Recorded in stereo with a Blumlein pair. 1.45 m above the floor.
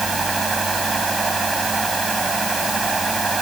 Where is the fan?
10° right.